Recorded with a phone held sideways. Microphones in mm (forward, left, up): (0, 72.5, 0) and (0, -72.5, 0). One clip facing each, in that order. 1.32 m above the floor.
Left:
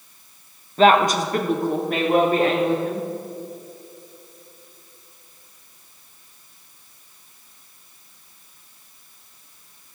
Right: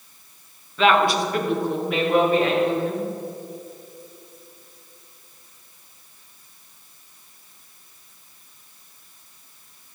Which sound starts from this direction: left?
A woman speaking, at 0.8 s.